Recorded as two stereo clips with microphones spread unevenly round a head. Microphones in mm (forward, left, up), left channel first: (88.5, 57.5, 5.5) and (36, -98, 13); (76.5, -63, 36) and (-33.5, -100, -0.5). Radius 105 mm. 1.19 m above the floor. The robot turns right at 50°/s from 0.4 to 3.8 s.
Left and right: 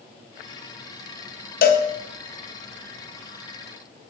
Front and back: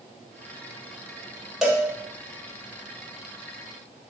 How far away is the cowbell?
About 0.5 m.